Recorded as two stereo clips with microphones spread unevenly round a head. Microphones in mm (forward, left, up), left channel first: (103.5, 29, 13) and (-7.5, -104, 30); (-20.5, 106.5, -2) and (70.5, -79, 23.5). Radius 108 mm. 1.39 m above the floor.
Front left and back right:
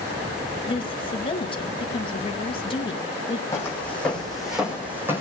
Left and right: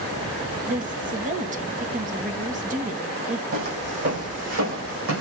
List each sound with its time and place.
0.7 s a woman speaking: 10° right, 1.4 m
3.5 s footsteps: 25° right, 4.5 m; by 5.2 s 55° right, 5 m